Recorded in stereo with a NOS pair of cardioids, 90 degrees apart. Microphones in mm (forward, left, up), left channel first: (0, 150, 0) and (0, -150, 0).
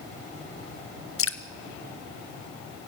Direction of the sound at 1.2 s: 45° left.